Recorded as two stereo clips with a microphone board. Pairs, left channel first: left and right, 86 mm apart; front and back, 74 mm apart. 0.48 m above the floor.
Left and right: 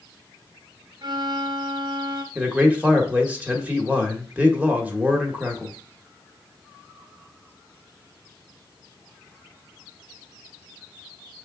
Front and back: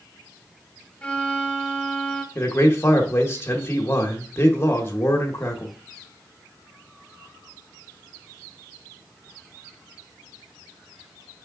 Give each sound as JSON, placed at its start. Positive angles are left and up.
{"t": 1.0, "sound": "a violin", "azimuth_deg": -75, "distance_m": 0.6}
{"t": 2.4, "sound": "a man speaking", "azimuth_deg": -30, "distance_m": 0.9}